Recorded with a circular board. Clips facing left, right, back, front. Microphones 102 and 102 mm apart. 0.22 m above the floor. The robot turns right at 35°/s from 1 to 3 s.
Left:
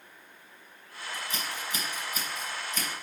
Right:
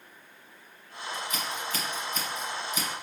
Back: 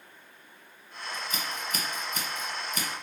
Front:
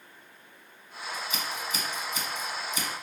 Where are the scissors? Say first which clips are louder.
Right 2 dB, front 1 dB; 135° left, 1.3 m; by 2.9 s 160° right, 1.3 m.